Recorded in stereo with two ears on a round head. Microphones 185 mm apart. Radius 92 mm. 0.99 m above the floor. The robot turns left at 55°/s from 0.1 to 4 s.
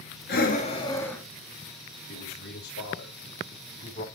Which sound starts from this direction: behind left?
A man speaking, at 2.1 s.